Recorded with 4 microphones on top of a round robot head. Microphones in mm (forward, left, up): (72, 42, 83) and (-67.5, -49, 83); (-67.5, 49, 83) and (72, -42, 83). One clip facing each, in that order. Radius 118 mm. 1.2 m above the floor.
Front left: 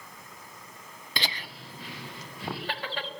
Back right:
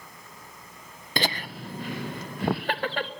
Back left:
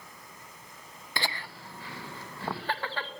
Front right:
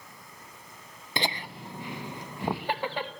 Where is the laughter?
105° right, 0.8 m; by 3.1 s 110° right, 2 m.